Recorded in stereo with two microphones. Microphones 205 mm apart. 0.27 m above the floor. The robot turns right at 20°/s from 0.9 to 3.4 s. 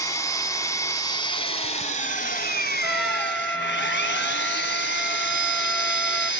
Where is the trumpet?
5° right (ahead or behind), 1.1 m; by 6.3 s 5° left (ahead or behind), 1.1 m.